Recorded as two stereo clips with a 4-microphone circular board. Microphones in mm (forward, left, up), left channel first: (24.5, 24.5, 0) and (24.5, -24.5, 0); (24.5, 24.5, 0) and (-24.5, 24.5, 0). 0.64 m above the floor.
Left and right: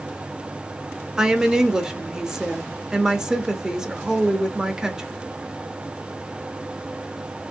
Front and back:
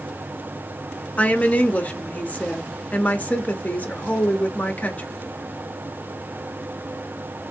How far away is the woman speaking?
About 0.7 m.